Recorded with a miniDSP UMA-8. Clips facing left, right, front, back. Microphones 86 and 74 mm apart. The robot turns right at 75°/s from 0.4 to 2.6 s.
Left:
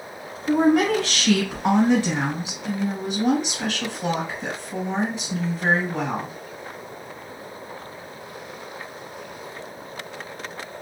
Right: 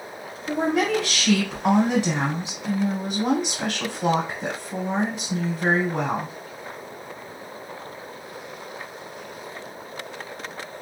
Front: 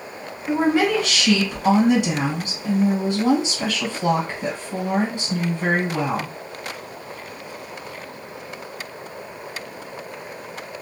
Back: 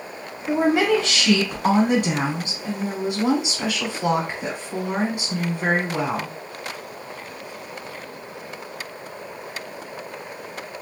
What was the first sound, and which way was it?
A woman speaking, 90° left.